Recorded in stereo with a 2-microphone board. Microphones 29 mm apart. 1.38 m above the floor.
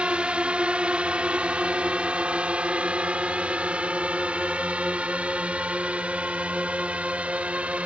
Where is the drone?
40° right (ahead or behind); by 7.9 s 50° right (ahead or behind).